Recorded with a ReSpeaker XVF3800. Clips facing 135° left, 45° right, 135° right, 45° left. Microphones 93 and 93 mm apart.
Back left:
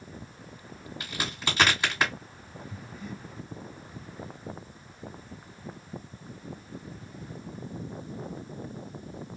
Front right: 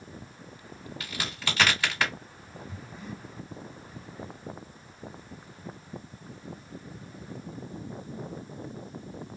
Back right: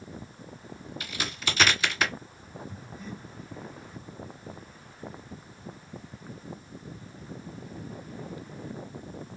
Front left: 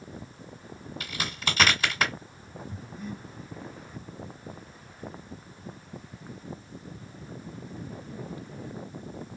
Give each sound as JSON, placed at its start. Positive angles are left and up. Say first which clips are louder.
{"t": 1.0, "sound": "a crack", "louder": "back left 2 dB, front left 1 dB", "azimuth_deg": 70, "distance_m": 1.8}
{"t": 2.7, "sound": "breathing", "louder": "back left 1 dB, front left 2 dB", "azimuth_deg": 10, "distance_m": 1.2}